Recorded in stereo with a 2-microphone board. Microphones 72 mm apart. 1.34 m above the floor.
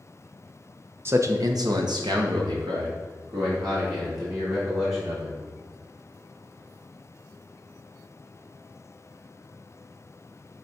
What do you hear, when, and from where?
1.1 s a man speaking: 30° right (ahead or behind), 0.7 m; by 5.4 s 65° right (ahead or behind), 3.5 m